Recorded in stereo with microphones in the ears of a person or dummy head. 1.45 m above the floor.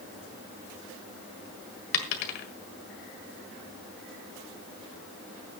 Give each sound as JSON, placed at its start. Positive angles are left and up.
{"t": 1.9, "sound": "a dropped coin", "side_deg": 50, "distance_m": 1.6}